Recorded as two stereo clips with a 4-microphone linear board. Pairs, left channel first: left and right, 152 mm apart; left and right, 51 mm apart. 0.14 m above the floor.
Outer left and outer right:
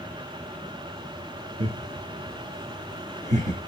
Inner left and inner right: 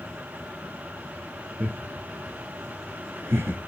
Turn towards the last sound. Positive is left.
turn(degrees=-55)  # may be behind; listen again after turning